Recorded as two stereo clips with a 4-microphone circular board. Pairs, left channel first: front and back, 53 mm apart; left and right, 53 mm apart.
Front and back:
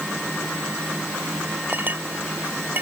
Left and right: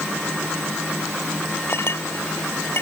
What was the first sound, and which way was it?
A clink, 130° left.